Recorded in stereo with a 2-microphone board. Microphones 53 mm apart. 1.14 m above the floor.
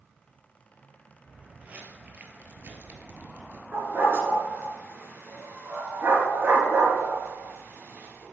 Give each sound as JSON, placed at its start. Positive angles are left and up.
{"t": 1.3, "sound": "footsteps", "side_deg": -25, "distance_m": 1.9}
{"t": 3.7, "sound": "a dog barking", "side_deg": -40, "distance_m": 4.0}